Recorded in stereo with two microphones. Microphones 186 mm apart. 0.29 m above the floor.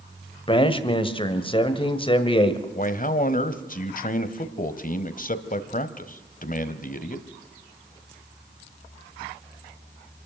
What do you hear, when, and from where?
0.5 s a man speaking: 30° left (ahead or behind), 1.4 m
2.8 s a man speaking: 45° left (ahead or behind), 1.2 m